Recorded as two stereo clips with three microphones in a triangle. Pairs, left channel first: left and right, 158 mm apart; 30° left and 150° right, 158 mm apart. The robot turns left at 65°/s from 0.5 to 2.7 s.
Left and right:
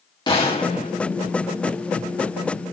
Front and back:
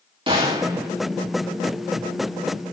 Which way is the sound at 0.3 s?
155° left.